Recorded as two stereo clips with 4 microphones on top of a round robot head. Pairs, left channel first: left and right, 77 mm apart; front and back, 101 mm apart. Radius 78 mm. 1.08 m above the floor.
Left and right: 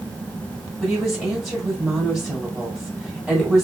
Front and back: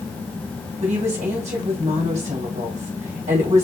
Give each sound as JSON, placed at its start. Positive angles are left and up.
{"t": 0.8, "sound": "a woman speaking", "azimuth_deg": -175, "distance_m": 2.0}